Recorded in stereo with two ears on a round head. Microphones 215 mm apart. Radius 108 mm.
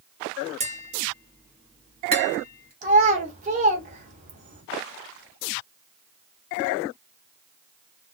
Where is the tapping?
25° right (ahead or behind), 1.2 m.